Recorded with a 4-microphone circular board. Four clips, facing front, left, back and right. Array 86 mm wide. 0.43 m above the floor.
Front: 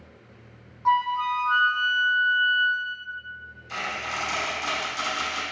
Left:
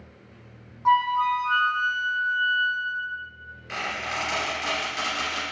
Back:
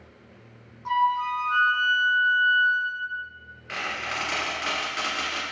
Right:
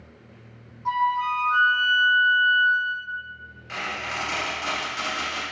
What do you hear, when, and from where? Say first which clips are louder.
0.8 s a flute: left 3 dB, front 1 dB; 50° left, 0.6 m
3.7 s a squeak: left 1 dB, even; straight behind, 1.4 m